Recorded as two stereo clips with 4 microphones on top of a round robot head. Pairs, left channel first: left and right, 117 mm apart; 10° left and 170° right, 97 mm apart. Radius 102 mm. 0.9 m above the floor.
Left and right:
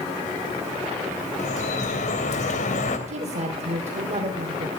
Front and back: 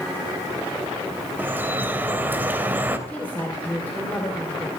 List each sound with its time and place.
1.4 s dripping: 120° left, 3 m
3.1 s a woman speaking: 65° right, 3 m